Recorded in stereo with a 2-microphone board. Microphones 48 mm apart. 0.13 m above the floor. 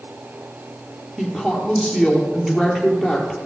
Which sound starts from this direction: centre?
A woman speaking, at 1.2 s.